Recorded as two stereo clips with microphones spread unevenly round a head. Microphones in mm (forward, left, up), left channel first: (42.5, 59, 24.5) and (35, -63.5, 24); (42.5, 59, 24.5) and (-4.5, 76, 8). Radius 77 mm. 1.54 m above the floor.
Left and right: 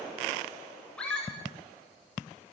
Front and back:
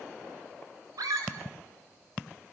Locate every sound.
1.0 s a scream: 170° left, 7.5 m